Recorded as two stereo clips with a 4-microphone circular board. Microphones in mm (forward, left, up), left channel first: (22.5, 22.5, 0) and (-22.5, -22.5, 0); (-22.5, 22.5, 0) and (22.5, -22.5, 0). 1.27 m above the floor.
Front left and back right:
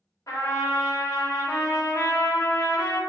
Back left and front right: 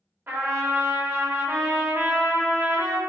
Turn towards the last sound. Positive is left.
turn(degrees=10)